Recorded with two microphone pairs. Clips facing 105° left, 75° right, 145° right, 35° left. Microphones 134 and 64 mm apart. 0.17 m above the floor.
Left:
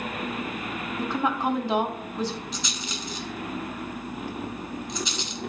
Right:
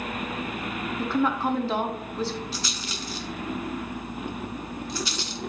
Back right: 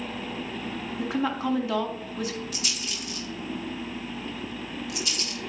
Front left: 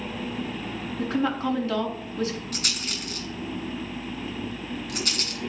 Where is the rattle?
35° left, 1.5 m.